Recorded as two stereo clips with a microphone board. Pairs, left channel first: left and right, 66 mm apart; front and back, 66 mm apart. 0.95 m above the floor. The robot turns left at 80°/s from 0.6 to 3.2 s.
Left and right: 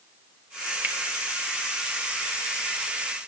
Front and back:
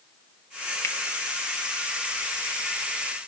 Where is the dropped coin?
I don't hear a dropped coin.